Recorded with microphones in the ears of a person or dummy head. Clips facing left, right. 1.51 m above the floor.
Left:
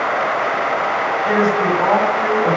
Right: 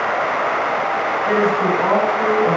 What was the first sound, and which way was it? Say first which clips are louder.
A woman speaking: left 1 dB; 50° left (ahead or behind).